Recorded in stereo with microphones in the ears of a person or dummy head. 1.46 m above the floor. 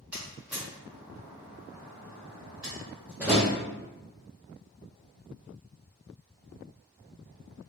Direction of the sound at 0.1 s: 5° right (ahead or behind).